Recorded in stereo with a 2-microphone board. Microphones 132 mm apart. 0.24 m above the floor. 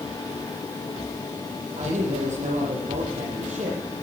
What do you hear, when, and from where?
1.8 s a man speaking: 65° right (ahead or behind), 6.5 m